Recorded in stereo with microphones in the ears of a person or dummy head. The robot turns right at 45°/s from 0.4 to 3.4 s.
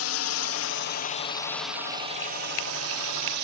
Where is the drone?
75° left (ahead or behind); by 3.4 s 60° right (ahead or behind).